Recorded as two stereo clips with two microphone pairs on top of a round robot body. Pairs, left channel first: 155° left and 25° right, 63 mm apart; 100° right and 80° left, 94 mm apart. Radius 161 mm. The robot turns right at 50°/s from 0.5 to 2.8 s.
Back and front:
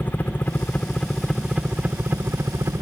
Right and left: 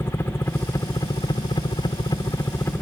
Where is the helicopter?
160° right; by 2.8 s 45° right.